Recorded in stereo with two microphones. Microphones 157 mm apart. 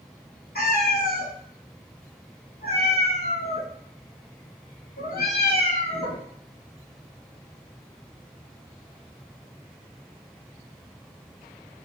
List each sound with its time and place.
0.6 s a cat meowing: 80° left, 0.7 m